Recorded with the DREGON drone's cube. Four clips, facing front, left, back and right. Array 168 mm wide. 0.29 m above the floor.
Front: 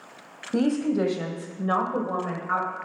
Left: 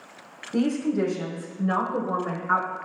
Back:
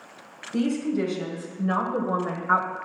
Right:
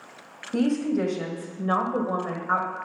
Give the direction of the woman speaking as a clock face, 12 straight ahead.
12 o'clock.